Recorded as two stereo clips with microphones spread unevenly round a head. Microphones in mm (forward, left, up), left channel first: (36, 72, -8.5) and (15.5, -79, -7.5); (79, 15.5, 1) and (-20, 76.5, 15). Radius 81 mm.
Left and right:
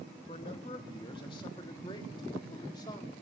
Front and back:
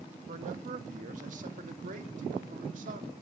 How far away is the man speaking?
About 2 m.